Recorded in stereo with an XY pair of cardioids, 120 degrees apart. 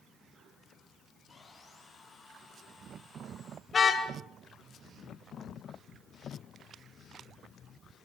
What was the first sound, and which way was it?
Sawing, 15° left.